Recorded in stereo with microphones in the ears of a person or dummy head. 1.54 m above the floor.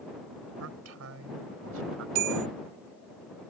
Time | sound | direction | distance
0.6 | a man speaking | 85° right | ?
2.1 | a bell | 75° right (ahead or behind) | ?